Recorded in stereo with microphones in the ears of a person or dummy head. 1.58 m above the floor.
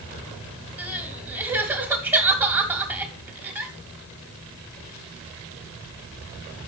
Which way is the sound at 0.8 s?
10° right (ahead or behind).